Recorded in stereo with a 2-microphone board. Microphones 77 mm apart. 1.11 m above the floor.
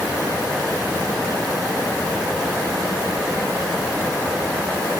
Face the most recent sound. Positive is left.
No sound to turn to.